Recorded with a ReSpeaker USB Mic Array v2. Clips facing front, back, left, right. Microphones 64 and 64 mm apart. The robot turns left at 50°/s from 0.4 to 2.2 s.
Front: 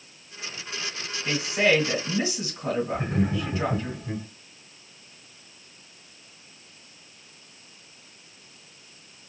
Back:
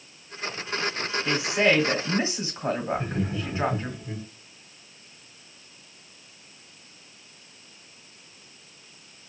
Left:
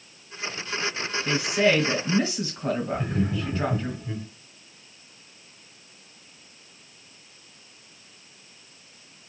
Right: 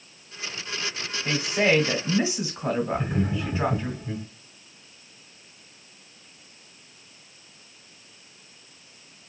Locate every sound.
1.2 s a woman speaking: 105° right, 1.5 m; by 3.9 s 155° right, 1.5 m
2.9 s laughter: 20° right, 1.7 m